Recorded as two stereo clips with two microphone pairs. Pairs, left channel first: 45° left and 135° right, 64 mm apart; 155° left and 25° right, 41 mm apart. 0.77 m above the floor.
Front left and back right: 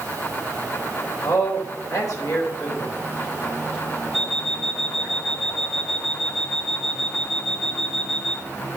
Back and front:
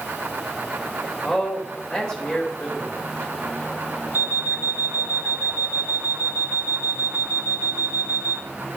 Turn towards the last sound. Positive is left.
turn(degrees=-45)